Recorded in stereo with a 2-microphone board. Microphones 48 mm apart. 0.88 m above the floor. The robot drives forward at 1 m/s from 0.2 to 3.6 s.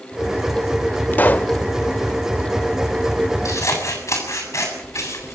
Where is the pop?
35° left (ahead or behind), 0.6 m; by 1.6 s 25° left (ahead or behind), 0.8 m.